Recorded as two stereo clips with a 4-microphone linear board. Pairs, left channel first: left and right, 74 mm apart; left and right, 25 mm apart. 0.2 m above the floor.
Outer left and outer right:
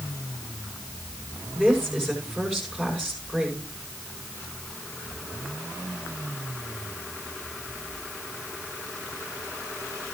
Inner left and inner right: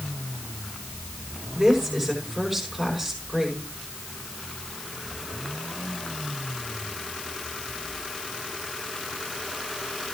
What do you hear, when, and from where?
1.6 s a woman speaking: 5° left (ahead or behind), 7.5 m